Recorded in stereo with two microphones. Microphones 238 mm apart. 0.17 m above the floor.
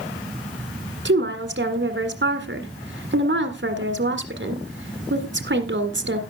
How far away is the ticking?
No ticking in this recording.